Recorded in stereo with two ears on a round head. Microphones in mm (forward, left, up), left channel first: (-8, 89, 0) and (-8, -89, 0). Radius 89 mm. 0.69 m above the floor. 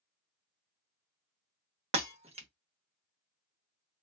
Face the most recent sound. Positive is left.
turn(degrees=-35)  # may be behind; listen again after turning